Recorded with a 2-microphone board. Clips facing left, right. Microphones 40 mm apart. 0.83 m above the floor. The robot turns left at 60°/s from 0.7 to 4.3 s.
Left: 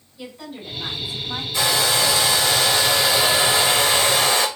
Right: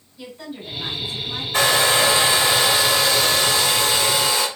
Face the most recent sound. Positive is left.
turn(degrees=100)